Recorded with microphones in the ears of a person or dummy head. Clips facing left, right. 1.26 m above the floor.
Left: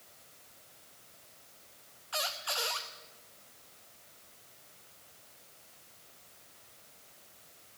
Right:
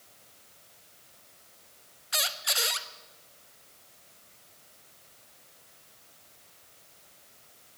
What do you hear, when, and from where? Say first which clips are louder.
2.1 s a squeak: right 1 dB; 25° right (ahead or behind), 0.7 m